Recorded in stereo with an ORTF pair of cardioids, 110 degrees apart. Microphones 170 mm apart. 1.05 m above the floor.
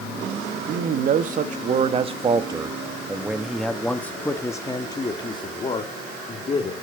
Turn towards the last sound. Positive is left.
turn(degrees=35)